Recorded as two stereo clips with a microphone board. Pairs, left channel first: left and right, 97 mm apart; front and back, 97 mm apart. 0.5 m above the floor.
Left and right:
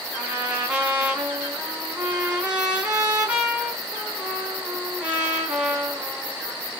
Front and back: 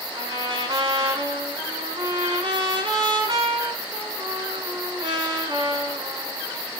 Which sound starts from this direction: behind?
A trumpet, at 0.1 s.